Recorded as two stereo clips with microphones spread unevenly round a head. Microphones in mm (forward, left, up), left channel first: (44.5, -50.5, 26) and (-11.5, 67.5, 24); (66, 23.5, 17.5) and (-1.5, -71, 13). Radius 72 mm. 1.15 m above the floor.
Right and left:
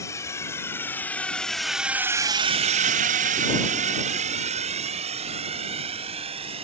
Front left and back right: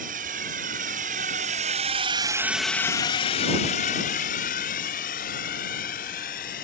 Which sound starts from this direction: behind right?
A drone, at 0.0 s.